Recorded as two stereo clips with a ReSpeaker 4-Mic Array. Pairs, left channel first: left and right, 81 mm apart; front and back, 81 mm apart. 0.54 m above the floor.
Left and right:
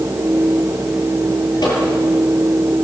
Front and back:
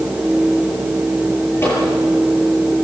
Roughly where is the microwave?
Ahead left.